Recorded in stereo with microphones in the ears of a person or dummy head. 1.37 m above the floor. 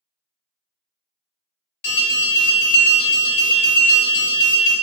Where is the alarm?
65° left (ahead or behind), 1.5 m.